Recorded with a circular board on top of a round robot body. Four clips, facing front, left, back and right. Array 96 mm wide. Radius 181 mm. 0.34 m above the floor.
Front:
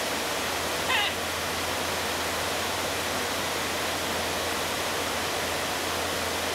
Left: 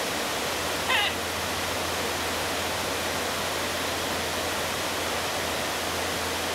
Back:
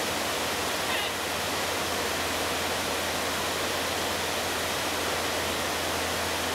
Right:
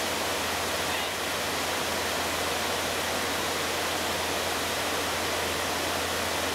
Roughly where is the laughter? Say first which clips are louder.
Left 4 dB, front 2 dB; ahead left.